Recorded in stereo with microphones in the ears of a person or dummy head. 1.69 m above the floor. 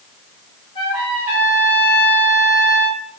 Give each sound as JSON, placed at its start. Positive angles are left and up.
{"t": 0.8, "sound": "a trumpet", "side_deg": 30, "distance_m": 1.3}